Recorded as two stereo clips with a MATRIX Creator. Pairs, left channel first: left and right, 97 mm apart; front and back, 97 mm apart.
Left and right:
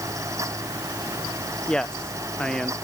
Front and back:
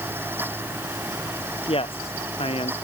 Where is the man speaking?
10° left.